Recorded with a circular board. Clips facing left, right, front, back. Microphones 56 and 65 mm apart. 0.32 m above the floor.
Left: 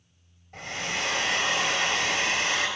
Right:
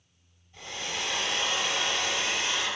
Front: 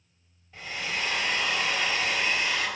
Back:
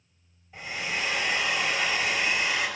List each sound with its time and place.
0.5 s a hair dryer: 95° left, 4 m